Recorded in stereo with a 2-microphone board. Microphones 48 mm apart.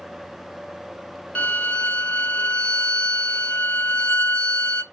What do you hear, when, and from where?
1.4 s a violin: 30° left (ahead or behind), 1.0 m